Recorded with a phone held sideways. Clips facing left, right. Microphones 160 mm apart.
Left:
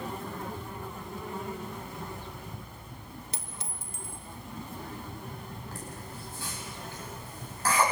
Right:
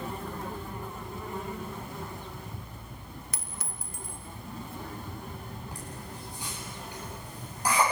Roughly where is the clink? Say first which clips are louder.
Even; left.